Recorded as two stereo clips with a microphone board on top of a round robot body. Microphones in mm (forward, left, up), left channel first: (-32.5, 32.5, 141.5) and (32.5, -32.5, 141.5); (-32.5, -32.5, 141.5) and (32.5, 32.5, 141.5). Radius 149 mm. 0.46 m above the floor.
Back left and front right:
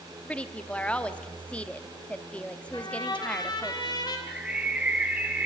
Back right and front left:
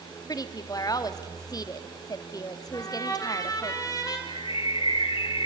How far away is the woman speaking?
About 1.7 m.